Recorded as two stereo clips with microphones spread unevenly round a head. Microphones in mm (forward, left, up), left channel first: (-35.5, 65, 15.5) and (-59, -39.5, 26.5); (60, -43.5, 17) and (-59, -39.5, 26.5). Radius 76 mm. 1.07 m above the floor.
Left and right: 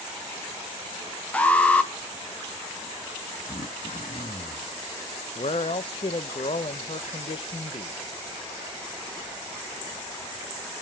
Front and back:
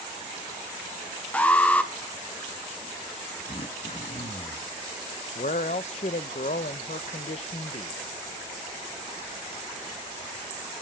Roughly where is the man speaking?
Ahead left.